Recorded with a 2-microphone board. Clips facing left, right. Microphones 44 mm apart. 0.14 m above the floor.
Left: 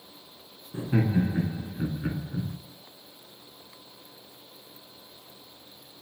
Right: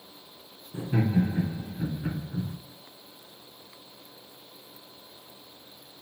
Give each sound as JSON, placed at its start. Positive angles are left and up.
{"t": 0.7, "sound": "laughter", "side_deg": 30, "distance_m": 1.2}